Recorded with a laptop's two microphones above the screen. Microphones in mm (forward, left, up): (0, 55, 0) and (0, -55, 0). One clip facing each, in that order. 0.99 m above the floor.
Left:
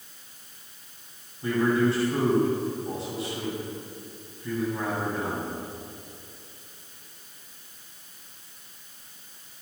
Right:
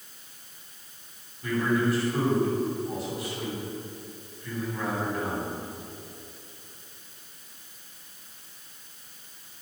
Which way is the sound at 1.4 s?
30° left (ahead or behind).